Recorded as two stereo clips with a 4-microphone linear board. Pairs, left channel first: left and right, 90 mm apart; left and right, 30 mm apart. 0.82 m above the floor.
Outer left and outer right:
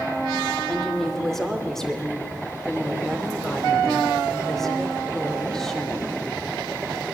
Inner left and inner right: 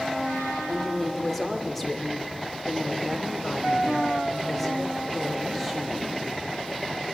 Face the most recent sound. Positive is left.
turn(degrees=5)  # may be behind; listen again after turning